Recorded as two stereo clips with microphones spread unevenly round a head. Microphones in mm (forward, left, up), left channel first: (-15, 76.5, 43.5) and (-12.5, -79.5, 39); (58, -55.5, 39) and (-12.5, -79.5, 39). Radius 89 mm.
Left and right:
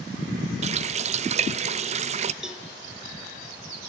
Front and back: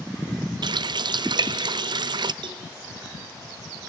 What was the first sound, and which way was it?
A running tap, 140° right.